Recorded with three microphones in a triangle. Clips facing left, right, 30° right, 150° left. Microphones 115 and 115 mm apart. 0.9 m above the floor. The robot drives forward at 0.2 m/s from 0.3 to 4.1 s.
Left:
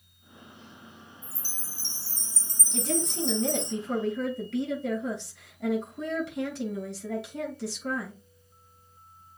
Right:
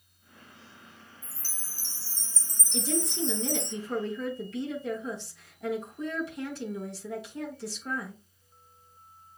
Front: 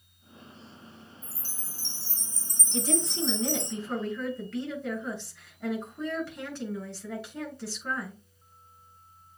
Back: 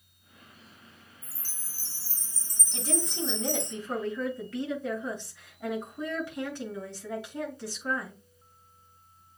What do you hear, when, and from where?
1.2 s a chime: 60° left, 2.5 m; by 3.7 s 70° left, 2 m
2.7 s a woman speaking: 75° left, 6 m